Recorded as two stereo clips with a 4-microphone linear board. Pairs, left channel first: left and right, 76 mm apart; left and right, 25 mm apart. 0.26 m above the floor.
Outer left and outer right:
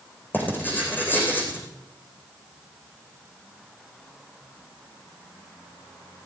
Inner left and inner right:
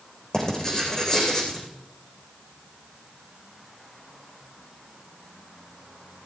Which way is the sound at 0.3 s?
25° left (ahead or behind).